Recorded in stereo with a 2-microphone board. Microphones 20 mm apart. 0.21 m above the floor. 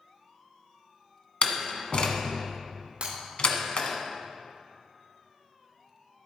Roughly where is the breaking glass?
Right.